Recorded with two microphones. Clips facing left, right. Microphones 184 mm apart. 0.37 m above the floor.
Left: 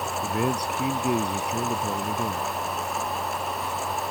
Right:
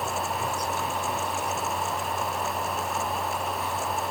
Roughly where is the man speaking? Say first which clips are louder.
Left 4 dB; left.